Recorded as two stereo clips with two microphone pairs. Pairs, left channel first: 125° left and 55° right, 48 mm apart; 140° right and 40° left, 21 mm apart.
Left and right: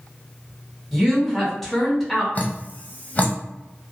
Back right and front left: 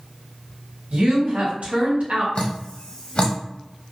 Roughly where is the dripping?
Behind.